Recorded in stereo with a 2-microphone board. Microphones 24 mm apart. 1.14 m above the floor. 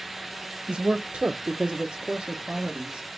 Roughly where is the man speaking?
Right.